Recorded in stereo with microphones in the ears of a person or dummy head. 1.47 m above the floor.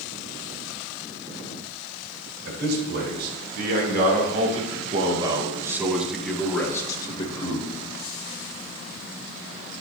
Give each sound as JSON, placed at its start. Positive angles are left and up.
{"t": 2.5, "sound": "a man speaking", "side_deg": -75, "distance_m": 3.5}